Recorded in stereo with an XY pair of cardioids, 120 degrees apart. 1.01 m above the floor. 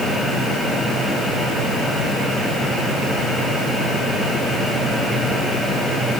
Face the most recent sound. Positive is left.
No sound to turn to.